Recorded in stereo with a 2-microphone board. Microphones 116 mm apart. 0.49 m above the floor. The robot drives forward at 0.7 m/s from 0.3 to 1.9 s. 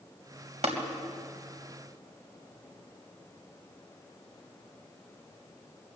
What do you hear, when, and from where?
0.6 s tapping: 65° right (ahead or behind), 3 m